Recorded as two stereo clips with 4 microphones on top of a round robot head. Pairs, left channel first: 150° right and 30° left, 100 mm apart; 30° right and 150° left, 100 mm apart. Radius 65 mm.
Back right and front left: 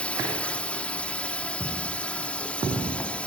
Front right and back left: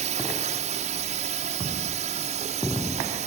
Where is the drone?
130° left.